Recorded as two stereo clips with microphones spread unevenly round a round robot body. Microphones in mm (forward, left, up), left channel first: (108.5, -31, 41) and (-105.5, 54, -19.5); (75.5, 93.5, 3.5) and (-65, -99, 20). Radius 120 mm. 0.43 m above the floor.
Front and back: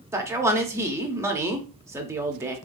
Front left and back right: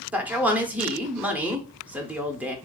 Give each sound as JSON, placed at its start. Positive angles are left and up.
{"t": 0.1, "sound": "a man speaking", "azimuth_deg": 150, "distance_m": 0.8}